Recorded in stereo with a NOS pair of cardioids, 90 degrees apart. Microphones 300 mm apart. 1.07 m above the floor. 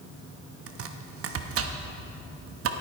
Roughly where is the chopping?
Ahead right.